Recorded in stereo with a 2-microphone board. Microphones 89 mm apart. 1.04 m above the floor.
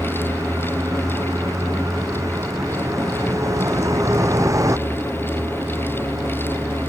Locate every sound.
0.0 s a vehicle: 35° right (ahead or behind)